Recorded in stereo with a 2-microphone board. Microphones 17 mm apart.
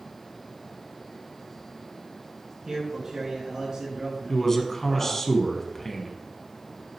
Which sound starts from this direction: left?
A man speaking, at 4.3 s.